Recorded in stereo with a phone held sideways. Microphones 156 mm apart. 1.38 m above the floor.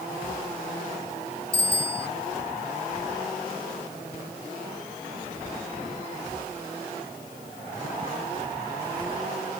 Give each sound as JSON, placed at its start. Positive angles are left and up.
{"t": 1.5, "sound": "a bicycle bell", "side_deg": -50}